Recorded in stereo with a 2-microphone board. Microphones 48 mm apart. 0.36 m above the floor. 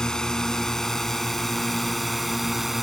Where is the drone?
15° left (ahead or behind); by 2.8 s 5° right (ahead or behind).